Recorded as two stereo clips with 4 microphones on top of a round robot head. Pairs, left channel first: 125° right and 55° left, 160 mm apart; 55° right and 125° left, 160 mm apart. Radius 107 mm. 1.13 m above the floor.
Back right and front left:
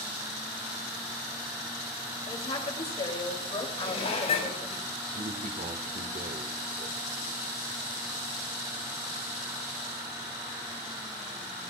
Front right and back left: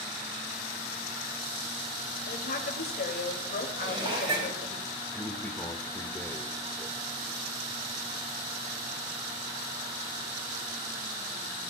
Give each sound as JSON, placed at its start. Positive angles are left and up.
{"t": 2.3, "sound": "a woman speaking", "azimuth_deg": -75, "distance_m": 2.5}
{"t": 3.8, "sound": "dishes clattering", "azimuth_deg": -175, "distance_m": 5.5}
{"t": 5.1, "sound": "a man speaking", "azimuth_deg": 20, "distance_m": 1.6}